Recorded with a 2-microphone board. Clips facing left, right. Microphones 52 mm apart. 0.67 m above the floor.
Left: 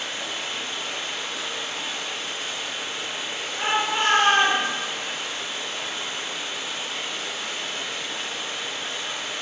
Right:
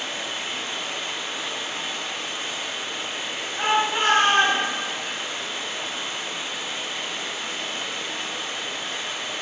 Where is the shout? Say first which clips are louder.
Right 2 dB; 20° right (ahead or behind), 1.1 m.